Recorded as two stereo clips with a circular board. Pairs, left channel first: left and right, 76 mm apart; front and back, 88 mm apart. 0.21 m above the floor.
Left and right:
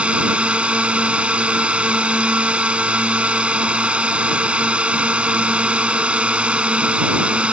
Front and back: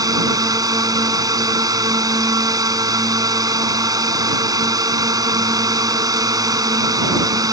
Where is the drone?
160° right.